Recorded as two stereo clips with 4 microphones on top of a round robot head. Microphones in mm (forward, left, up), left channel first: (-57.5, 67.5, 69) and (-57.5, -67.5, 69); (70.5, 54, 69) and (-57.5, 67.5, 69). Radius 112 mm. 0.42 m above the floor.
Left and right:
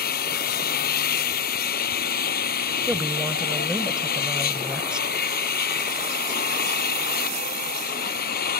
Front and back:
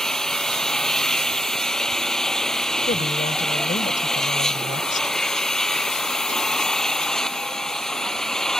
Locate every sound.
0.0 s an engine running: 80° left
2.9 s a woman speaking: 5° right